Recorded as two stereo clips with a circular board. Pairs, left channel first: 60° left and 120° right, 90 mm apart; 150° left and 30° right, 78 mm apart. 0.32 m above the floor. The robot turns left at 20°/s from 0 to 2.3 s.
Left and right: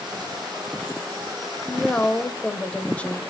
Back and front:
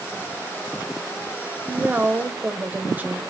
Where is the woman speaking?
15° left, 1.4 m; by 3.2 s straight ahead, 1.4 m.